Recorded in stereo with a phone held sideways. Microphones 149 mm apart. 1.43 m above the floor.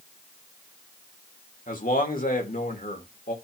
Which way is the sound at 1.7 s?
80° left.